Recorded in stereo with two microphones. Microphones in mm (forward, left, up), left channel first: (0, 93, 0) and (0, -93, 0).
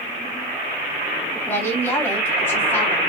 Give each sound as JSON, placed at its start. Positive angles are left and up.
{"t": 1.5, "sound": "a woman speaking", "side_deg": 15, "distance_m": 2.0}